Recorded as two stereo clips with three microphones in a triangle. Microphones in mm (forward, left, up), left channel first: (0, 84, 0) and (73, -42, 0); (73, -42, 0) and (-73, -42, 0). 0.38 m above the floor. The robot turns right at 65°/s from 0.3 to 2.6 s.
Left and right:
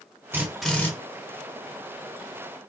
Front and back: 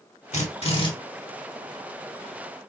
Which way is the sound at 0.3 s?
10° left.